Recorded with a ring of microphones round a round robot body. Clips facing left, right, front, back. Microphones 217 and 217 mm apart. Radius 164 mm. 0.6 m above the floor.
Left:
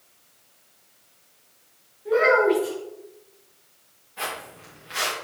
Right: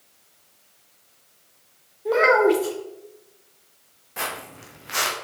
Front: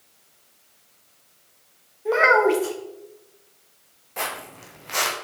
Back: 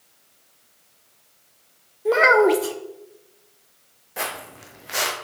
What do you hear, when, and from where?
2.0 s a child speaking: 130° right, 1.2 m
4.2 s footsteps: 100° right, 1.8 m